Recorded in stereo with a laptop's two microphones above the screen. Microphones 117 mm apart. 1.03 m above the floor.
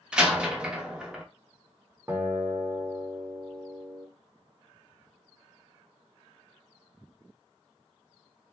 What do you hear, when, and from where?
0.1 s a door slam: 10° right (ahead or behind), 0.5 m
2.1 s a guitar: 20° right (ahead or behind), 1.3 m